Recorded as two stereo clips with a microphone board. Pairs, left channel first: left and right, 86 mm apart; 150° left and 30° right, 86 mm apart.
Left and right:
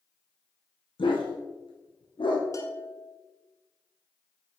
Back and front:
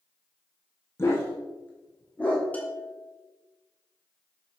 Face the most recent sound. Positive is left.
turn(degrees=90)